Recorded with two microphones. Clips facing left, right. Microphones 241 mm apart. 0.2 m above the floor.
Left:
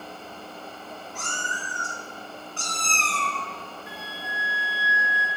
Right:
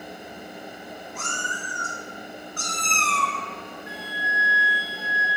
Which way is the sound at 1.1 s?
35° left (ahead or behind).